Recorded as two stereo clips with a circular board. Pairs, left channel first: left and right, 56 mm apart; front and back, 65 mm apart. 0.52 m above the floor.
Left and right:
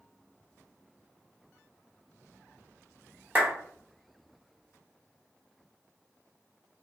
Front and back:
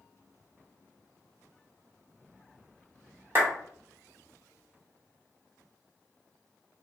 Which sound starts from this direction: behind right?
A clap, at 3.4 s.